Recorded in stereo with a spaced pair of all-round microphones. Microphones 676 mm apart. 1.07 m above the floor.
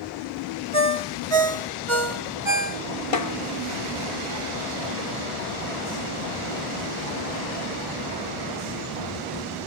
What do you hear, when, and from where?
0.7 s a ringtone: 45° right (ahead or behind), 1.6 m
3.1 s a snare drum: 50° left (ahead or behind), 1.0 m